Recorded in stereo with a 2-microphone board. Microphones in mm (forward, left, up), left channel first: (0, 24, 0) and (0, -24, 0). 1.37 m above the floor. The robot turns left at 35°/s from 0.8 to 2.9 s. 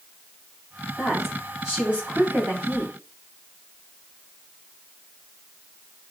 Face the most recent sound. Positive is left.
turn(degrees=-60)